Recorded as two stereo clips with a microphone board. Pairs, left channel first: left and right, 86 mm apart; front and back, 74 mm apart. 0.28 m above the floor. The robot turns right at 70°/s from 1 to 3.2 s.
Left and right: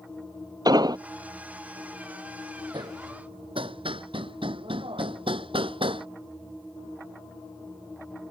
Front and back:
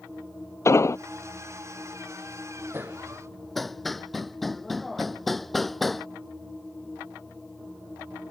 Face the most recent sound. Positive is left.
turn(degrees=-90)